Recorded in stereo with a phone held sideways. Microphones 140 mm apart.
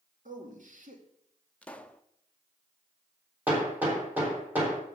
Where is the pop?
10° left (ahead or behind), 0.7 m.